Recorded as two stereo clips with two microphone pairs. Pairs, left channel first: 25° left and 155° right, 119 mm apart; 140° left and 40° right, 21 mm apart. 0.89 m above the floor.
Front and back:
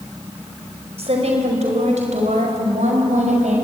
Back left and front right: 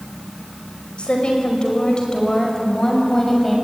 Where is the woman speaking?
175° left, 5 m; by 3.6 s 150° right, 6 m.